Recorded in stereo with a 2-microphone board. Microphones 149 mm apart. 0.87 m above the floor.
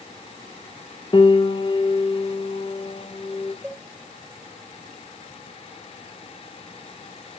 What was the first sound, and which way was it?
A piano, 30° left (ahead or behind).